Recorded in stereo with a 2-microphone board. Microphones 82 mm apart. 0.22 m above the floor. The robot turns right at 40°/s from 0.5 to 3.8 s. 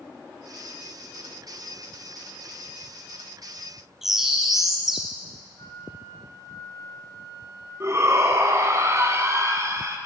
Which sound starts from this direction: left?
A flute, at 5.6 s.